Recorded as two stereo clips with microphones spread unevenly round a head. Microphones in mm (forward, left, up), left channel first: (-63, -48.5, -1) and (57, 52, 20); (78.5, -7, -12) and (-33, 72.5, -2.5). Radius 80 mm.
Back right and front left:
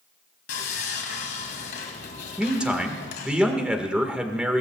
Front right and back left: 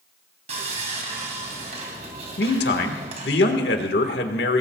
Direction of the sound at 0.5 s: 160° right.